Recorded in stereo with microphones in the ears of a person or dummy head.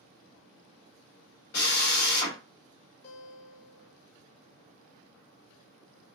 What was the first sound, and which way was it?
A drill, 55° left (ahead or behind).